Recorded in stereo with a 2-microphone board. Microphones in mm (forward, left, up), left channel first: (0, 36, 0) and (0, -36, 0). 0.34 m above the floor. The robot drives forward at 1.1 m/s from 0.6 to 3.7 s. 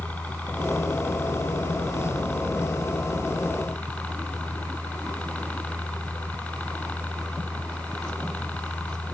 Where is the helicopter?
20° left (ahead or behind).